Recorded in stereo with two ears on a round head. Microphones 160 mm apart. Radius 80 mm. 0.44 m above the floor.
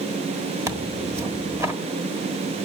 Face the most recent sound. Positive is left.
turn(degrees=-20)  # may be behind; listen again after turning